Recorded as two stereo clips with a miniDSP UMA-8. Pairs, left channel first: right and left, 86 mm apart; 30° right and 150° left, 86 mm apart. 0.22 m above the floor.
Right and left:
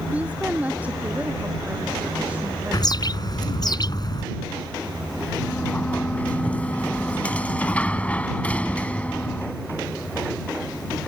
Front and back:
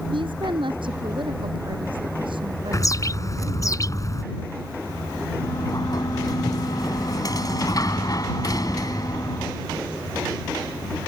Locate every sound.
0.1 s a woman speaking: 165° left
2.7 s a bird: 70° right
5.4 s a sliding door: 20° right